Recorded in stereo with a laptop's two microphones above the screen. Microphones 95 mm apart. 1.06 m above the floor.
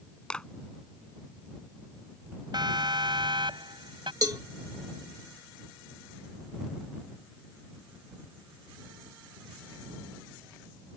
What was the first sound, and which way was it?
A clap, 10° left (ahead or behind).